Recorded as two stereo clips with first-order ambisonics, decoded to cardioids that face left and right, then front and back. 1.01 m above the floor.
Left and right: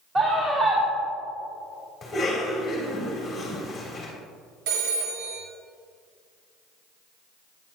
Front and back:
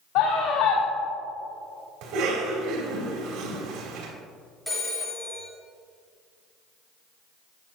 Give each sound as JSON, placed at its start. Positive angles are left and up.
{"t": 0.1, "sound": "a scream", "azimuth_deg": -25, "distance_m": 1.7}
{"t": 2.0, "sound": "a cough", "azimuth_deg": 170, "distance_m": 3.0}
{"t": 4.7, "sound": "a phone ringing", "azimuth_deg": -85, "distance_m": 1.5}